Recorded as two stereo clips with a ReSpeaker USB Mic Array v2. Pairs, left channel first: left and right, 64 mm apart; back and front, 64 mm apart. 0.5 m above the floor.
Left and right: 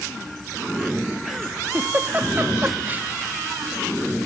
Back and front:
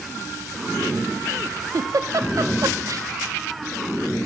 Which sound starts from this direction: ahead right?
A giggle, at 1.7 s.